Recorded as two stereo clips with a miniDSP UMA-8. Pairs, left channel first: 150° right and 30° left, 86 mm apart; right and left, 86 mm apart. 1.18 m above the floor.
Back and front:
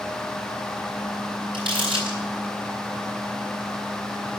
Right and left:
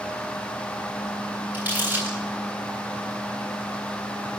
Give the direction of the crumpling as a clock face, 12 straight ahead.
11 o'clock.